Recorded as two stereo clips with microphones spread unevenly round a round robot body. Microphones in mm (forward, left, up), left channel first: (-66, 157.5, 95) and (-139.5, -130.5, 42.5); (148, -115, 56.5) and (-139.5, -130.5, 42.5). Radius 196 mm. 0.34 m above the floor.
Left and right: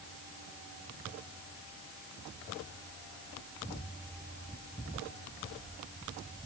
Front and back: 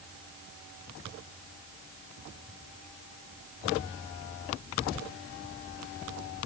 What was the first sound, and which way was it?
Only background noise.